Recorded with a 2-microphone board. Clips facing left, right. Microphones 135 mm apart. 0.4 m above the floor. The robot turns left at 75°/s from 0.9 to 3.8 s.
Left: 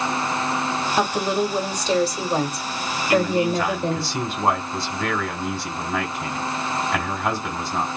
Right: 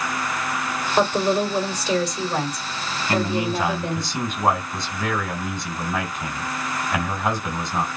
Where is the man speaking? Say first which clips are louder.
Left 3 dB; 130° right, 1.8 m; by 7.9 s 175° left, 1.8 m.